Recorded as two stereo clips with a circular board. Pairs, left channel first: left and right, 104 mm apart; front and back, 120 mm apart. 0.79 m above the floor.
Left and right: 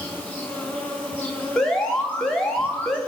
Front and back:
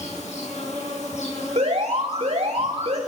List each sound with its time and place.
0.0 s an insect: 15° left, 6 m
1.6 s an alarm: 175° left, 2.5 m